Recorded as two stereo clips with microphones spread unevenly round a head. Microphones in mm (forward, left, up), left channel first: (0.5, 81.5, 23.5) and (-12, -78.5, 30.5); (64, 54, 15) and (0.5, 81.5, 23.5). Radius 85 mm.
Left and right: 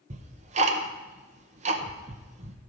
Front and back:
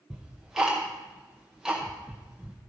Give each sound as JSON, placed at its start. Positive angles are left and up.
{"t": 0.1, "sound": "ticking", "azimuth_deg": -125, "distance_m": 0.7}